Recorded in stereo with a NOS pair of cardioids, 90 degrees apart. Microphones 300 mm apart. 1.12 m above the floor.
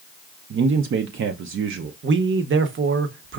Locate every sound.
0.5 s a man speaking: 45° right, 0.5 m
2.0 s a man speaking: 40° right, 0.8 m